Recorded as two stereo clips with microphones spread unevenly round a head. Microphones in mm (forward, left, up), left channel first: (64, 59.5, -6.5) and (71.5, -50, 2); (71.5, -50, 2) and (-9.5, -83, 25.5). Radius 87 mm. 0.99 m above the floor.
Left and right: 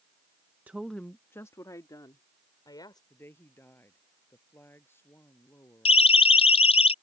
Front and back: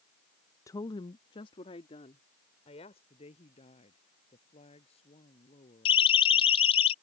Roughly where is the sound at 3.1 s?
Ahead left.